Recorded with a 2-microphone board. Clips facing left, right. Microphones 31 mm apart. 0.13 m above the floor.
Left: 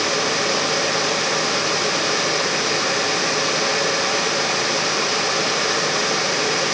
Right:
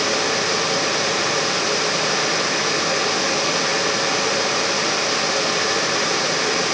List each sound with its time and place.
Only background noise.